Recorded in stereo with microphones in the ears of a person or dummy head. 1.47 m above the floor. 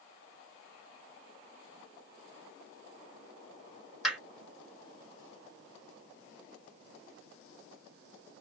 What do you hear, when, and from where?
4.0 s hammering: 5° right (ahead or behind), 3 m